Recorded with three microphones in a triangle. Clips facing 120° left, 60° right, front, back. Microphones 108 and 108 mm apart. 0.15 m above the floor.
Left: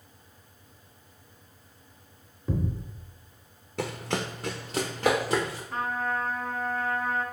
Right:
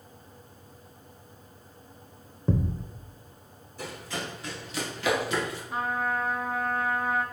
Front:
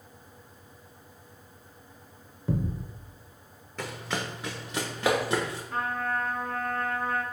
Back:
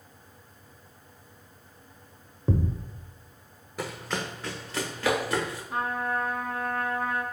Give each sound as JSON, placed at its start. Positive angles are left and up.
{"t": 2.5, "sound": "a thud", "azimuth_deg": -115, "distance_m": 0.6}
{"t": 3.8, "sound": "running footsteps", "azimuth_deg": 100, "distance_m": 0.5}
{"t": 5.7, "sound": "a trumpet", "azimuth_deg": -125, "distance_m": 0.6}